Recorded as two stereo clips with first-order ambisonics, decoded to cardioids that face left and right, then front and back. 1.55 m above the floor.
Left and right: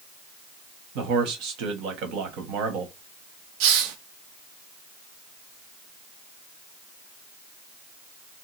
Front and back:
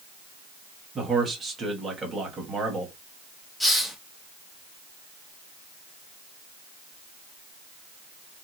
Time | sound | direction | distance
0.9 | a man speaking | 110° right | 1.1 m
3.6 | a hiss | 90° right | 0.6 m